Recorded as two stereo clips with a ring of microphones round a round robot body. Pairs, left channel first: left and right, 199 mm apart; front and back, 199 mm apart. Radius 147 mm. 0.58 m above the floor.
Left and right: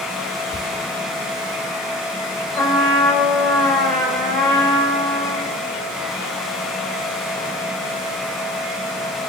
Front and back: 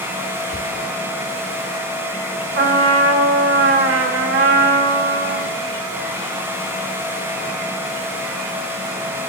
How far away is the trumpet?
About 1.3 m.